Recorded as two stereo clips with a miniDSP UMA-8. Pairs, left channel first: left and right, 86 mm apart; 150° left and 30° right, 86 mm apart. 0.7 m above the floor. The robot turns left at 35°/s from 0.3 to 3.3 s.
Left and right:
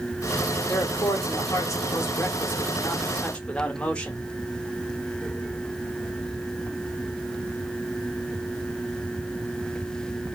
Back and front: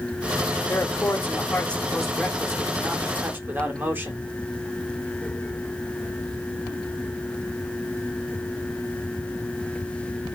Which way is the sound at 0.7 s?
115° left.